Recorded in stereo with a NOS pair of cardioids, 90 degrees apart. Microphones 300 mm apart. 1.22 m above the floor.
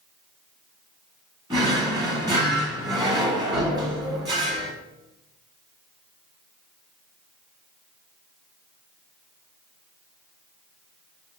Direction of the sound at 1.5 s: 15° right.